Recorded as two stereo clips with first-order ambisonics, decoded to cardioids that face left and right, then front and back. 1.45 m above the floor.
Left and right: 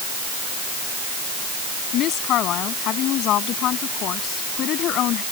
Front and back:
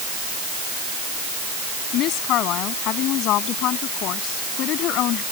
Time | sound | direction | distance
1.9 | a woman speaking | 45° left | ?